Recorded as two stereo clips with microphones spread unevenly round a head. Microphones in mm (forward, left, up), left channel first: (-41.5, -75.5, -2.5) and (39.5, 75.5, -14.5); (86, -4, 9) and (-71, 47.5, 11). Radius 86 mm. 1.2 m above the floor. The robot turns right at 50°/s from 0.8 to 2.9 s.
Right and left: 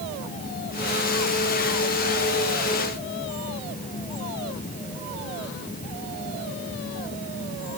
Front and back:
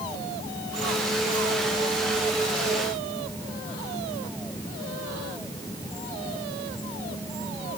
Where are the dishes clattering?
No dishes clattering in this recording.